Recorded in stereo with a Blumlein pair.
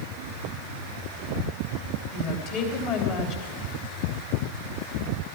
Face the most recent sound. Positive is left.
turn(degrees=45)